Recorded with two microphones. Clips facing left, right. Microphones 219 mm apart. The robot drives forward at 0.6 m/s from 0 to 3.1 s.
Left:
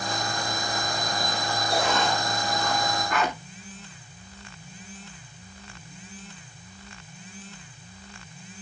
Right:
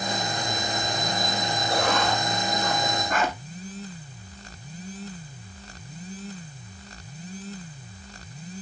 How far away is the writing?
About 2 m.